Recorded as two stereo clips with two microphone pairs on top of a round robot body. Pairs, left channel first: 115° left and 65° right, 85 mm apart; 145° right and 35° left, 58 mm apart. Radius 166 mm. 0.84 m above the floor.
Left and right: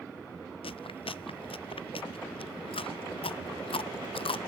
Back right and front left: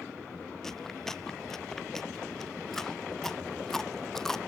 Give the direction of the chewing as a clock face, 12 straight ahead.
8 o'clock.